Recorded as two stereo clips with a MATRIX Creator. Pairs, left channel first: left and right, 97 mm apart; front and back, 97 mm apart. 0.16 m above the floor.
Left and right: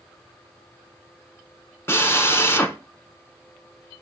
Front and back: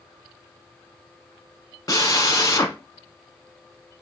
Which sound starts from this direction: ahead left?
A drill, at 1.9 s.